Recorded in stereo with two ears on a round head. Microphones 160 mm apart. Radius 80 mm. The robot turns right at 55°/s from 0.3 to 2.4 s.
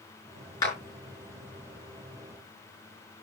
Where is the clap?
20° left (ahead or behind), 5 m; by 0.8 s 15° left (ahead or behind), 5 m.